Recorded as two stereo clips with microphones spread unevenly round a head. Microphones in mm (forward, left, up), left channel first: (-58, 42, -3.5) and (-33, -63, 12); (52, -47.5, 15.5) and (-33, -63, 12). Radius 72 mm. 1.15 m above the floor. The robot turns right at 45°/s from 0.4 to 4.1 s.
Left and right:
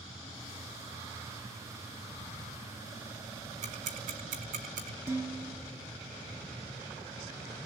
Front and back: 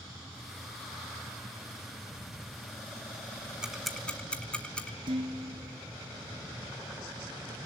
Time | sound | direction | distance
3.6 | ticking | 90° right | 4.5 m
5.1 | dishes clattering | 145° right | 7 m